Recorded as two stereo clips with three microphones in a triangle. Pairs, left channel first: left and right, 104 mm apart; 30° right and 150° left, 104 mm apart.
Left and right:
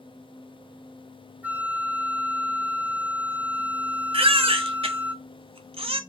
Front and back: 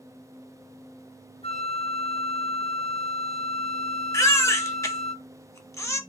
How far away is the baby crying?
About 0.6 m.